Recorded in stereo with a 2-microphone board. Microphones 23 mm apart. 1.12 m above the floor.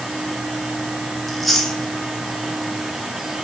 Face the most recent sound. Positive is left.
turn(degrees=5)  # may be behind; listen again after turning